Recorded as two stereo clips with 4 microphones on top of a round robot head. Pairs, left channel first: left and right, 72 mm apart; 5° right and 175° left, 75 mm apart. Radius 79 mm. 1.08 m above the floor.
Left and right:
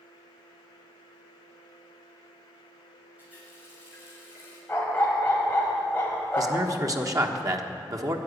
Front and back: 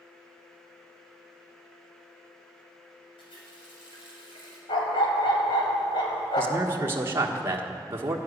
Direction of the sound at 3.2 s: 15° right.